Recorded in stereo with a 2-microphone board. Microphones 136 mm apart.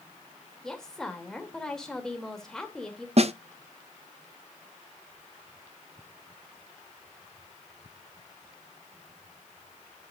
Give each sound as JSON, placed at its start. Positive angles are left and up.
{"t": 0.6, "sound": "a woman speaking", "side_deg": 5, "distance_m": 2.5}
{"t": 3.2, "sound": "a snare drum", "side_deg": -50, "distance_m": 0.7}